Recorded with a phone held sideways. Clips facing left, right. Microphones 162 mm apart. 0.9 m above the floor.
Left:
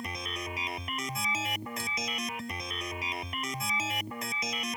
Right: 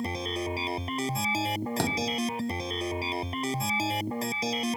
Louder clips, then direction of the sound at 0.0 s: Right 8 dB; 30° right (ahead or behind).